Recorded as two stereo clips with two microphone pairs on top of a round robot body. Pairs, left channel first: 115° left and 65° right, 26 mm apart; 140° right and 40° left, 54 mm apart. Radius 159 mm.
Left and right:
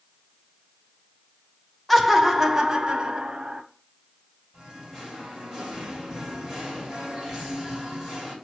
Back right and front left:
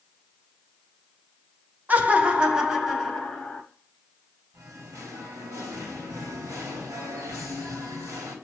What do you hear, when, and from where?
1.9 s laughter: 15° left, 0.9 m; by 3.6 s 60° right, 1.2 m
4.5 s singing: 25° left, 2.5 m